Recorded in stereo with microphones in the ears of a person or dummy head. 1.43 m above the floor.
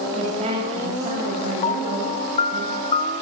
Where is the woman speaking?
40° right (ahead or behind), 8 m.